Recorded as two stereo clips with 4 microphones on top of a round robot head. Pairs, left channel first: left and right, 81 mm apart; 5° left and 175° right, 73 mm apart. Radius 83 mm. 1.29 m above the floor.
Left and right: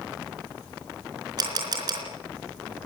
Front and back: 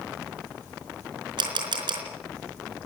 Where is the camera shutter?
140° right, 4 m.